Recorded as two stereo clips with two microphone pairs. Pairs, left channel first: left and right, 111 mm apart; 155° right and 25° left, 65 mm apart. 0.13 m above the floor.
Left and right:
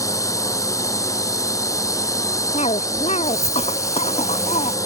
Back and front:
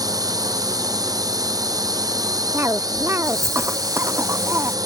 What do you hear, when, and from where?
0.0 s a drone: 30° left
2.5 s a cough: 75° left